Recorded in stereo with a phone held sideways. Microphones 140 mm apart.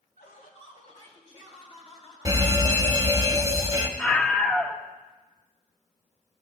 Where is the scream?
5° left (ahead or behind), 0.8 m.